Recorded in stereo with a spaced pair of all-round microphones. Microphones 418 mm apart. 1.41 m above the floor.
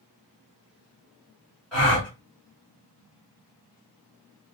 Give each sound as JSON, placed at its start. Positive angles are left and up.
{"t": 1.7, "sound": "a gasp", "side_deg": 0, "distance_m": 1.5}